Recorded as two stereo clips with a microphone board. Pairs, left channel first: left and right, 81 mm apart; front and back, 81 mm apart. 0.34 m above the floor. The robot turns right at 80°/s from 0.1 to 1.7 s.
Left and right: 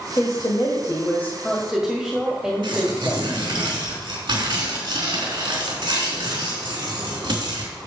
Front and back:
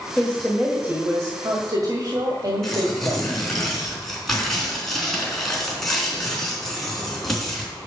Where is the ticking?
No ticking in this recording.